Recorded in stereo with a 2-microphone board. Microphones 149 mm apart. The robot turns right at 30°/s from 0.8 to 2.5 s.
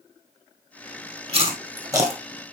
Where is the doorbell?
No doorbell in this recording.